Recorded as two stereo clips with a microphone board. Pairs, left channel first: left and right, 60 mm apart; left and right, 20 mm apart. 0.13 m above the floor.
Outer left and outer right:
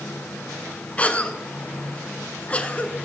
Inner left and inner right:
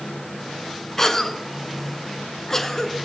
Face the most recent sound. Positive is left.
turn(degrees=25)  # may be behind; listen again after turning